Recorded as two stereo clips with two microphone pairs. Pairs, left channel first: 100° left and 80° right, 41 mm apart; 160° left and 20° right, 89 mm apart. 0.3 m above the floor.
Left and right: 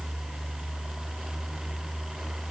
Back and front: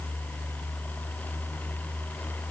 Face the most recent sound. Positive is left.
No sound to turn to.